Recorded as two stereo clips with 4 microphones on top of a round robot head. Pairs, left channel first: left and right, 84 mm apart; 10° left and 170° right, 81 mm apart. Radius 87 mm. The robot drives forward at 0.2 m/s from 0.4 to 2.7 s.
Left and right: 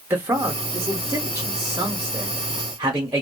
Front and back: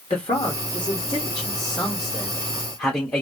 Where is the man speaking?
30° right, 0.9 m; by 3.2 s 70° right, 0.7 m.